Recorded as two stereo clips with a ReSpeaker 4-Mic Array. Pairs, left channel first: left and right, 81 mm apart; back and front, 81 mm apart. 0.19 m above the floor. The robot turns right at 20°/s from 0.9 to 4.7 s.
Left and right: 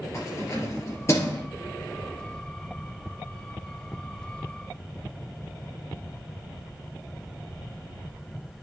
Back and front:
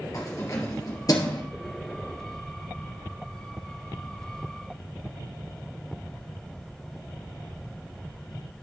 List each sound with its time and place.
0.1 s keys jangling: 140° left, 2.5 m; by 1.4 s 150° left, 2.5 m